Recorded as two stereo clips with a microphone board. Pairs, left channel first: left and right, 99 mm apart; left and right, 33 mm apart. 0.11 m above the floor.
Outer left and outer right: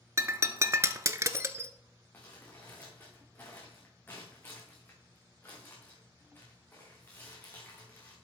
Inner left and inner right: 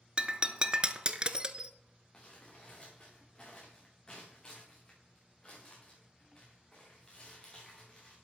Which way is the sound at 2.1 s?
20° left (ahead or behind).